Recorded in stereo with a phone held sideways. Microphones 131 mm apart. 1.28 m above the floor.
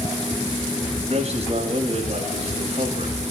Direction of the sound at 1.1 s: 50° right (ahead or behind).